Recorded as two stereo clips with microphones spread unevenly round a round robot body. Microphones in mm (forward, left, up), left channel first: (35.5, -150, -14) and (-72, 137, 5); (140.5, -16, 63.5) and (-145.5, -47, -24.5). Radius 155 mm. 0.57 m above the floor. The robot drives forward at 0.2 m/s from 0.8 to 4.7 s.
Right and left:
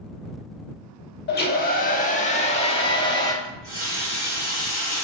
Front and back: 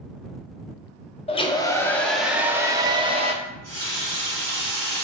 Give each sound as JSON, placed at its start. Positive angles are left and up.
{"t": 1.3, "sound": "a hair dryer", "azimuth_deg": -80, "distance_m": 0.6}
{"t": 3.4, "sound": "a running tap", "azimuth_deg": -170, "distance_m": 2.0}